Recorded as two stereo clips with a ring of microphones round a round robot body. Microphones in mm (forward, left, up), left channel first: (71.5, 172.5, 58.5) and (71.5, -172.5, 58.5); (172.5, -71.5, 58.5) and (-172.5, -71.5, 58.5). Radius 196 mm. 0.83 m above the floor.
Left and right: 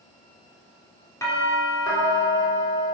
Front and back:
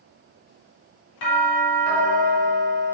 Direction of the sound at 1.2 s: 10° left.